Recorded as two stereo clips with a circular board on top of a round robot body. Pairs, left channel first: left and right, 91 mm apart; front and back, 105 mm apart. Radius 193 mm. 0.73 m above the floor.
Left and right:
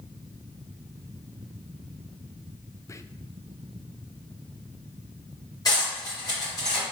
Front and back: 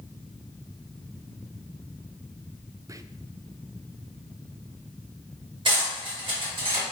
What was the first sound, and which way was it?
Whispering, 135° left.